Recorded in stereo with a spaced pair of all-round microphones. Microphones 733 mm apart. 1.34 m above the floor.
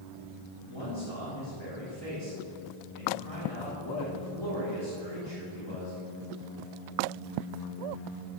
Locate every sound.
0.7 s a man speaking: 35° left (ahead or behind), 4 m